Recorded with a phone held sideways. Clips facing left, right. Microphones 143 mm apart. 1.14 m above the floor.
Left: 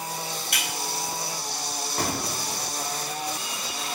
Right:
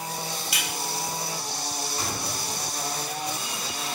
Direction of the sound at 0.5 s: 65° left (ahead or behind).